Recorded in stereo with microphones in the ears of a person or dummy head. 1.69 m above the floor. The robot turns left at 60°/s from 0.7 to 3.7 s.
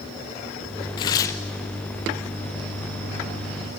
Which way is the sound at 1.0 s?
30° left (ahead or behind).